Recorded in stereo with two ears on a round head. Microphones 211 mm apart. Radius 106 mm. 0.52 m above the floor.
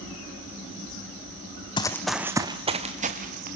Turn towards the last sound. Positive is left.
turn(degrees=-40)  # may be behind; listen again after turning